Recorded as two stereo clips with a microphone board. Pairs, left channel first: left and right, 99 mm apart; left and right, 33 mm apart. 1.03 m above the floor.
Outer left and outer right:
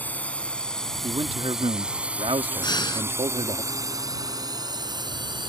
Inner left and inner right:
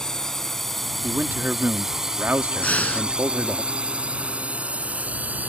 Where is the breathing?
50° left (ahead or behind).